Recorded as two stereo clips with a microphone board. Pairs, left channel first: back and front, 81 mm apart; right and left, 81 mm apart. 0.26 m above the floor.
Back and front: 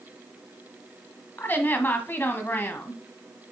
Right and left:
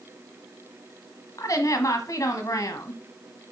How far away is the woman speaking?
About 1.4 m.